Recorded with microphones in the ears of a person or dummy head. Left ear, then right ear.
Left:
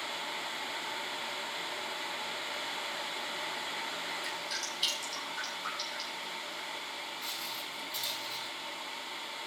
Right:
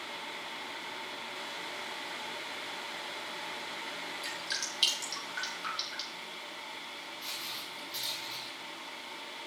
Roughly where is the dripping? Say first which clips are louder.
Even; right.